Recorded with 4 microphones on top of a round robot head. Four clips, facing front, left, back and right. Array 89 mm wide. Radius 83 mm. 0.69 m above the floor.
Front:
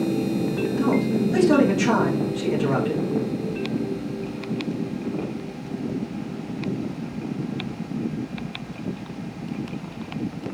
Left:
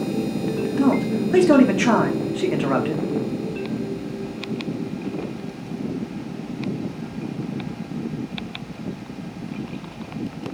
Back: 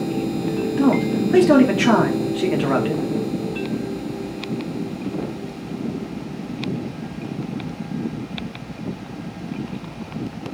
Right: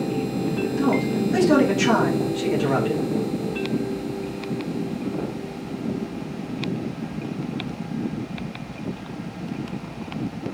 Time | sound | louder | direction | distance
0.8 | a man speaking | left 3 dB, back 4 dB | 140° left | 2.0 m